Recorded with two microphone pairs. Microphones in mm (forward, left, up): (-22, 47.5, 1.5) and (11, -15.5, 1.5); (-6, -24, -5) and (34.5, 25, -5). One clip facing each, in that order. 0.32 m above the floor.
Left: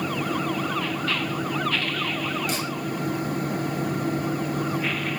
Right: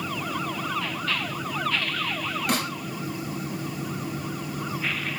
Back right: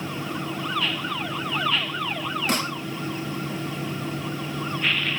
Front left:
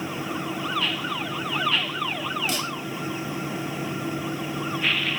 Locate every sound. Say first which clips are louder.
2.5 s a snare drum: right 1 dB, back right 3 dB; 95° right, 1.6 m